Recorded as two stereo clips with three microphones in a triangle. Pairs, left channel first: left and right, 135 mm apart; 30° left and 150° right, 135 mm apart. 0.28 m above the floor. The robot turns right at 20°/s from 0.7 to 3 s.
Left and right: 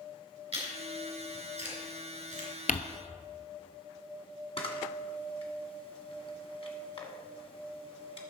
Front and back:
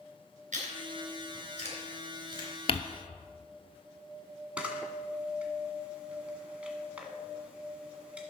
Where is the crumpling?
75° left, 0.7 m.